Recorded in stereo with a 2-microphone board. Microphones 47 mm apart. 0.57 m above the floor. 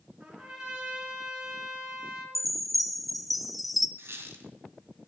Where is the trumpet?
15° right (ahead or behind), 3.5 m.